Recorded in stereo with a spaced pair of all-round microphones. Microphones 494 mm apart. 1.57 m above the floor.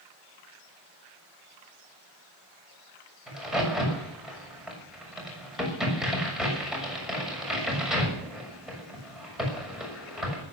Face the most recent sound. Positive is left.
turn(degrees=0)  # may be behind; listen again after turning